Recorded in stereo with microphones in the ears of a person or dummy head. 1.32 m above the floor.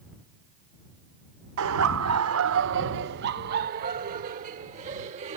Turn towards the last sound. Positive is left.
turn(degrees=-40)  # may be behind; listen again after turning